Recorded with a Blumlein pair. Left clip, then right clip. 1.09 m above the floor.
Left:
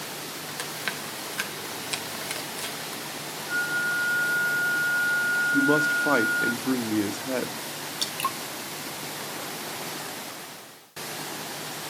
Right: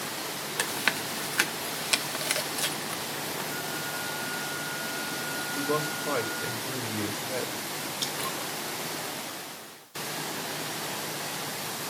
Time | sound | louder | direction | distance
0.6 | chewing | right 5 dB | 15° right | 0.7 m
3.5 | a flute | left 8 dB | 70° left | 1.0 m
5.5 | a man speaking | left 6 dB | 50° left | 1.1 m
8.0 | dripping | left 5 dB | 45° left | 1.5 m